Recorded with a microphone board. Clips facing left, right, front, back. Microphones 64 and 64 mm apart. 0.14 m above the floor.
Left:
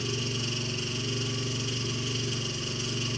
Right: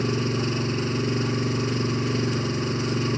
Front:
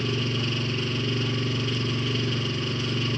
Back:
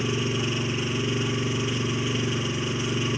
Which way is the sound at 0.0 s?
110° right.